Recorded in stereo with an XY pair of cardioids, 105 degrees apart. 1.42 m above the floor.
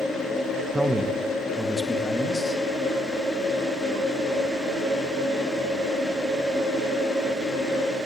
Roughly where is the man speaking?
Ahead.